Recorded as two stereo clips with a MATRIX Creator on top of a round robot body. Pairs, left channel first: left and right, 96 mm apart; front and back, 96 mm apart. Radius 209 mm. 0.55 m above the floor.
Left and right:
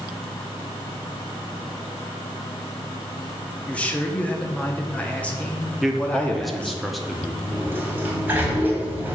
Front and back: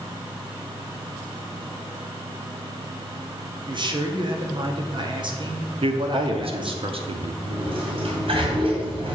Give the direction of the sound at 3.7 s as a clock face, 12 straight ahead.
7 o'clock.